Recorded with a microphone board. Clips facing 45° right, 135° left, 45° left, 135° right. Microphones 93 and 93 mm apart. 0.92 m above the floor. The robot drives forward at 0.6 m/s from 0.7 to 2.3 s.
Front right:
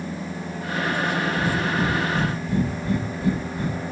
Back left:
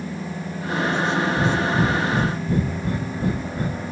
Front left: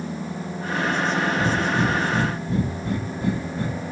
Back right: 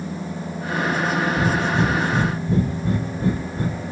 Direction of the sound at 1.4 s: 175° left.